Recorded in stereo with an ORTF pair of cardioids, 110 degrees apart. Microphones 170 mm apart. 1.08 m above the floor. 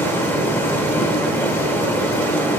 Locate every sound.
0.0 s running water: 15° left, 2.0 m